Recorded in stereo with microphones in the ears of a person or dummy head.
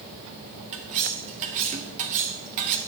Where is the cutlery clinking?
40° right (ahead or behind), 1.7 m.